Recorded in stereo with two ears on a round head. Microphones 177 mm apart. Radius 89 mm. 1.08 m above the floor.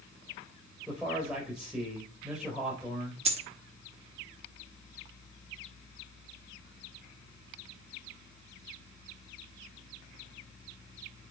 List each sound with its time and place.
0.9 s a man speaking: 5° right (ahead or behind), 4 m
3.2 s a dropped coin: 30° right (ahead or behind), 0.8 m